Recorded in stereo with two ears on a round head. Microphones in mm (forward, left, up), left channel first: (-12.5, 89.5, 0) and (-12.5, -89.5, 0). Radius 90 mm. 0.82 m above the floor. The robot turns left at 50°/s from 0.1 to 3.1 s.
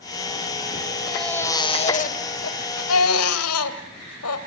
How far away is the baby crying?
About 2 m.